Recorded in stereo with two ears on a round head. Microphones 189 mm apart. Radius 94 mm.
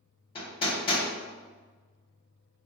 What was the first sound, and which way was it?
Hammering, 25° left (ahead or behind).